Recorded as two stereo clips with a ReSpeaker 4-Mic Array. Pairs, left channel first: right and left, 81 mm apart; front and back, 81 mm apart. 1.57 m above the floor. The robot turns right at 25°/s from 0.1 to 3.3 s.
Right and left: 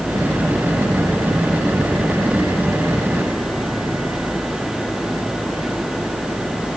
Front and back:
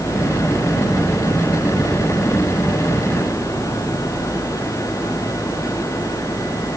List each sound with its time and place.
Only background noise.